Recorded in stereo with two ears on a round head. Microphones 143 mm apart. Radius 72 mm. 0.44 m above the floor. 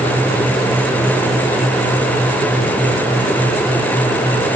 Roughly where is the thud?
No thud in this recording.